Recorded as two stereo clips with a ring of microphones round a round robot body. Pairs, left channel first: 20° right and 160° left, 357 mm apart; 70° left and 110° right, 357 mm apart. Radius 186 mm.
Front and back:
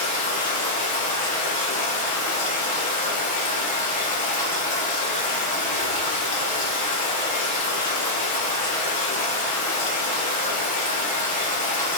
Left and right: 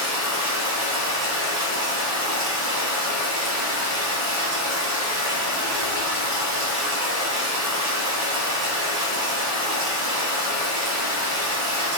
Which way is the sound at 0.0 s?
85° right.